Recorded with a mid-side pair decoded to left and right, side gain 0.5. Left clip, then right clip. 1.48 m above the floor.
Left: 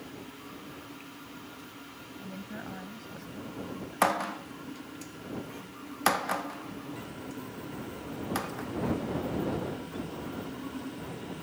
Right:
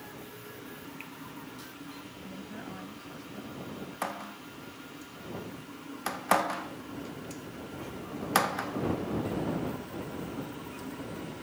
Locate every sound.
2.2 s a woman speaking: 20° left